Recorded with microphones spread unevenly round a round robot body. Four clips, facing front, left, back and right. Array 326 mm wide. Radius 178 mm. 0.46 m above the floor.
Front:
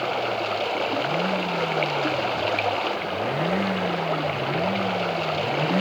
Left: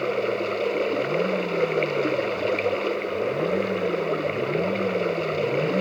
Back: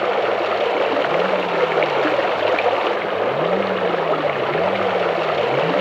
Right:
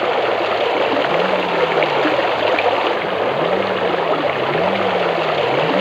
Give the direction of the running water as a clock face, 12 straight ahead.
4 o'clock.